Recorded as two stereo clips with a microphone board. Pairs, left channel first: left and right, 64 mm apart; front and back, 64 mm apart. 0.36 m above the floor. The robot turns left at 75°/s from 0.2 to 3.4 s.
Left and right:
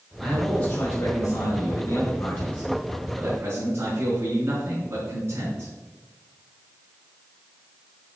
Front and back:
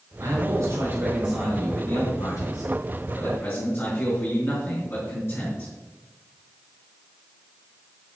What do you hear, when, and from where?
0.2 s a man speaking: 165° right, 4.5 m; by 5.7 s 45° right, 4.5 m